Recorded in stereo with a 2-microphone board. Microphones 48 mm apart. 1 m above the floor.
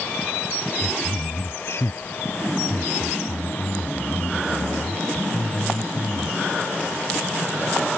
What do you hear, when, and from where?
0.8 s a man speaking: 60° left (ahead or behind)